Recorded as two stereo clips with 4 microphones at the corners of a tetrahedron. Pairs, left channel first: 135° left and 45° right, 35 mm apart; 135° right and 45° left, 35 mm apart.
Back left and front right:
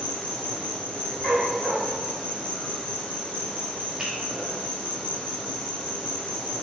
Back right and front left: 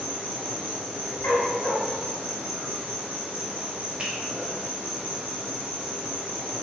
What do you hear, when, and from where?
0.0 s an insect: 95° left, 1.8 m
1.2 s a dog barking: 125° right, 1.4 m
4.0 s a finger snap: straight ahead, 1.0 m